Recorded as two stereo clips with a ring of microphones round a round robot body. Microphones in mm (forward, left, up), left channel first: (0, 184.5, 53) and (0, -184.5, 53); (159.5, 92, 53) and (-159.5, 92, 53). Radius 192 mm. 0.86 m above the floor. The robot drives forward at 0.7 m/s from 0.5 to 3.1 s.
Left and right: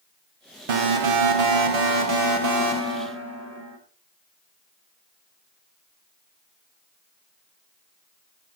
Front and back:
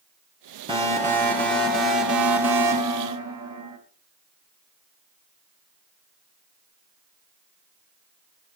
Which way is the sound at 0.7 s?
105° right.